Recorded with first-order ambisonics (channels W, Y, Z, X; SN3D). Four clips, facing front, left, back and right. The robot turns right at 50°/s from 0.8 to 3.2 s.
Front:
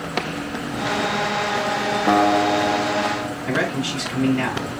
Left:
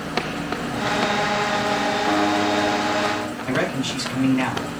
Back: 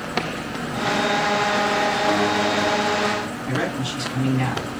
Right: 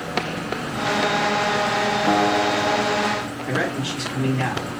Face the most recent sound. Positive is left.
turn(degrees=40)